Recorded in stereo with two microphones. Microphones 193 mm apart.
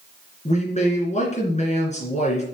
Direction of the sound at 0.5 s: 35° left (ahead or behind).